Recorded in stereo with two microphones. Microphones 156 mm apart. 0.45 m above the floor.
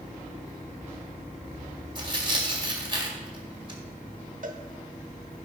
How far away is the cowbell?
About 1.0 m.